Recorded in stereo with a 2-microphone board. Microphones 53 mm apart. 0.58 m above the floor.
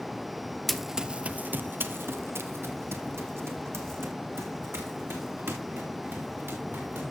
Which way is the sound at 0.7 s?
5° left (ahead or behind).